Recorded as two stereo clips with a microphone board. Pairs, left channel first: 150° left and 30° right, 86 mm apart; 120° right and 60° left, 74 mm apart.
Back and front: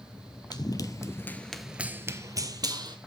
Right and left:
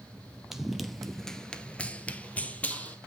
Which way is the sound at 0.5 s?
145° left.